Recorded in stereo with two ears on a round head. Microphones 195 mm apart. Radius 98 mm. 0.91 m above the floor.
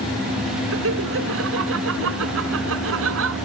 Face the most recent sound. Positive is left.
turn(degrees=-70)  # may be behind; listen again after turning